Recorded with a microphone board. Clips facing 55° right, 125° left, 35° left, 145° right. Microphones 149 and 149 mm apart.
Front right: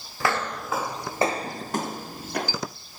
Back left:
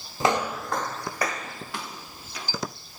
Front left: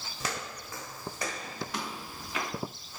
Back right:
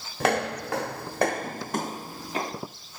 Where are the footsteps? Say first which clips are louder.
Back left 3 dB, back right 14 dB; 170° right, 1.0 m; by 2.6 s 90° right, 1.9 m.